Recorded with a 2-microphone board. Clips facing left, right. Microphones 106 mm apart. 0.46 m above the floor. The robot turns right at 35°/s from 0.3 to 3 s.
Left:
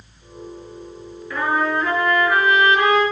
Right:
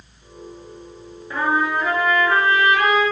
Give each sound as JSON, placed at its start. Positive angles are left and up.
{"t": 1.3, "sound": "a trumpet", "azimuth_deg": -30, "distance_m": 3.0}